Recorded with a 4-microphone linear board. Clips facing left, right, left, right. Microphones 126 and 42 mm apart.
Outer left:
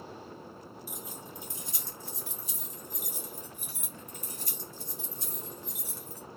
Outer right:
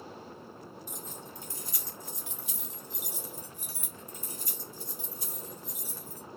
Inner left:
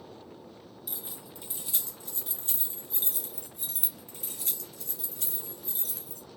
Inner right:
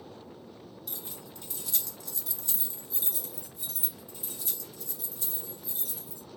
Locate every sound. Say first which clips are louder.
0.9 s keys jangling: even, inner left 1 dB; 10° left (ahead or behind), 1.5 m; by 6.2 s 65° left (ahead or behind), 2.5 m